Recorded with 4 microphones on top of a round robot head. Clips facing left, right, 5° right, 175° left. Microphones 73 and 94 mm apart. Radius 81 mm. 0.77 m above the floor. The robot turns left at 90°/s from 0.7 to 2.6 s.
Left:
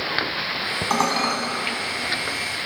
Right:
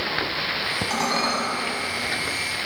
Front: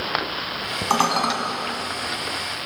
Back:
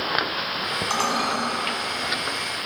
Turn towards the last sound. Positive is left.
turn(degrees=-115)